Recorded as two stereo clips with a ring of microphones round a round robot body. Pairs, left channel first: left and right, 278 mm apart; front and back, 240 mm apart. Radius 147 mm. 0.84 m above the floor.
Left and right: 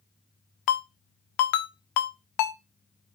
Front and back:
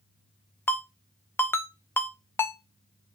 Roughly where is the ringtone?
Left.